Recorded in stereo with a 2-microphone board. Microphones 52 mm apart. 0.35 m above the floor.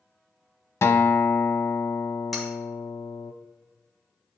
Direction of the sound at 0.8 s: 65° left (ahead or behind).